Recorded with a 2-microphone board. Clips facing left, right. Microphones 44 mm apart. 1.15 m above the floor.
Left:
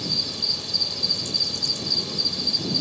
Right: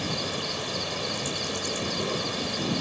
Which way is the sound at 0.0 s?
50° right (ahead or behind).